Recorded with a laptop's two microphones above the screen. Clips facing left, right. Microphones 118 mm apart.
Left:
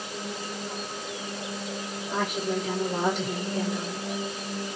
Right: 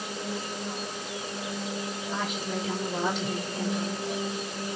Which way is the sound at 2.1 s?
45° left (ahead or behind).